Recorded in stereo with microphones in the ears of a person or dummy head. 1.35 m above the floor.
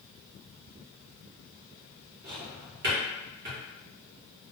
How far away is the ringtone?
No ringtone in this recording.